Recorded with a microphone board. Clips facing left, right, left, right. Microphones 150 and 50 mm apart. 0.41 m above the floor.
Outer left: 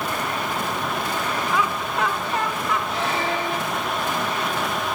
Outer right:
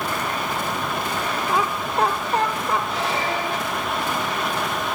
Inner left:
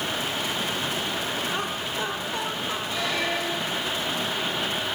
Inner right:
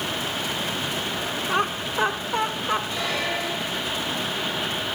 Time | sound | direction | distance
1.5 | laughter | 35° right (ahead or behind) | 0.9 m
2.9 | a squeak | centre (ahead or behind) | 6 m